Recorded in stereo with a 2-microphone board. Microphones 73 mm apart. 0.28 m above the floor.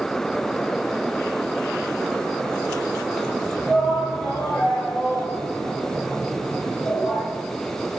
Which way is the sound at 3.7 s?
15° left (ahead or behind).